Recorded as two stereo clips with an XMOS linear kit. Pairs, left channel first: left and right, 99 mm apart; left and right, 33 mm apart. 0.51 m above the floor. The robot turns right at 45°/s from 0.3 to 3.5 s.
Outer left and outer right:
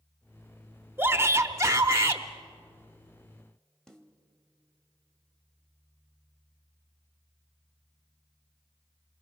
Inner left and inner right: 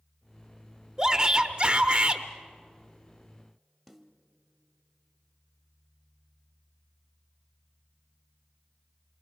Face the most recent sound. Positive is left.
turn(degrees=5)  # may be behind; listen again after turning